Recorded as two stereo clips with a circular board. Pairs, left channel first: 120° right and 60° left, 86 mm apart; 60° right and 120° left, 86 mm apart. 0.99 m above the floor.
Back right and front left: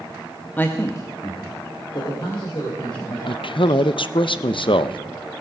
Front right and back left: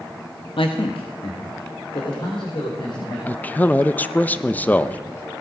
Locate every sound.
0.6 s a man speaking: 50° right, 0.9 m; by 3.2 s 90° right, 4 m
3.3 s a man speaking: 130° right, 0.5 m